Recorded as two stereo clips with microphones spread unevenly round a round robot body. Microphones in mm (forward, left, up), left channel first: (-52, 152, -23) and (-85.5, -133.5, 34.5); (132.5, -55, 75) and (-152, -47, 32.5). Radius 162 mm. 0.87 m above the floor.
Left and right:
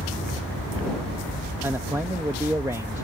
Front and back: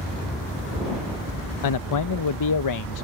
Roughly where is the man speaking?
Ahead.